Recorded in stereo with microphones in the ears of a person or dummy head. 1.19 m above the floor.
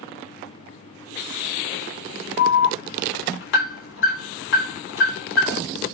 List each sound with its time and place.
2.4 s an alarm: 60° left (ahead or behind), 4.5 m